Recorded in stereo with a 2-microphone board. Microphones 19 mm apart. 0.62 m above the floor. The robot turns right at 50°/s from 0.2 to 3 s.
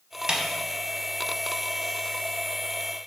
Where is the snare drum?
45° right (ahead or behind), 0.6 m; by 0.4 s 40° right (ahead or behind), 0.6 m.